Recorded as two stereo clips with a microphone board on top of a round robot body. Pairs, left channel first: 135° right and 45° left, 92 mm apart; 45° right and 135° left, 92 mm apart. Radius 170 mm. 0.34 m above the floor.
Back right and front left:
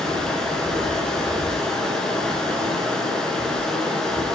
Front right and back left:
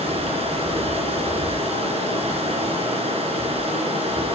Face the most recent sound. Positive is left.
turn(degrees=140)